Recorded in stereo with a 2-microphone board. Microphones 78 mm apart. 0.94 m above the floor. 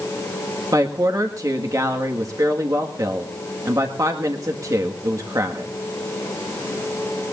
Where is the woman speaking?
45° right (ahead or behind), 1.7 m.